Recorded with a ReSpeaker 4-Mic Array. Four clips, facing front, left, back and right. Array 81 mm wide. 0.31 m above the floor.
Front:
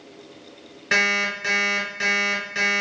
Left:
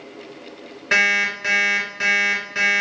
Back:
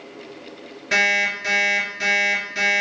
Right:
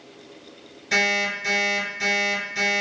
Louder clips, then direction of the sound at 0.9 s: Left 4 dB, back 2 dB; 75° left.